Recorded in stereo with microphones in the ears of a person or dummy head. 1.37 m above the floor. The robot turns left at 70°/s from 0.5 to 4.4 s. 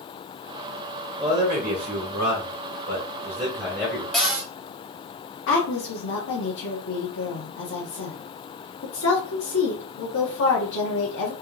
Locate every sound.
1.2 s a man speaking: 5° right, 1.9 m; by 4.0 s 155° left, 1.9 m
4.1 s a cupboard door: centre (ahead or behind), 0.9 m; by 4.5 s 15° right (ahead or behind), 0.9 m
5.5 s a woman speaking: 65° left (ahead or behind), 1.1 m